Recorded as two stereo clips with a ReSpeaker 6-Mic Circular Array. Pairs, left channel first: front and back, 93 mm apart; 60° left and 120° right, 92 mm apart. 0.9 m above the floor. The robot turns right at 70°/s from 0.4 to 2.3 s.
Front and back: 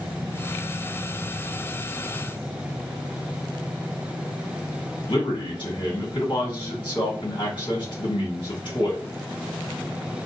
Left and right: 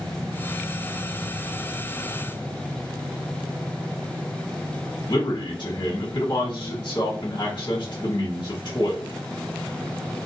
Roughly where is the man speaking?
Ahead left.